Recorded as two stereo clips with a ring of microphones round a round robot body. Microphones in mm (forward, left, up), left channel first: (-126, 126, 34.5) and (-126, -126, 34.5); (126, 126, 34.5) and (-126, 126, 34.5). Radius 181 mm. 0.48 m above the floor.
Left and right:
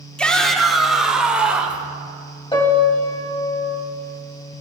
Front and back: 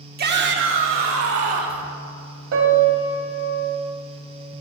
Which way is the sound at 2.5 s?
160° left.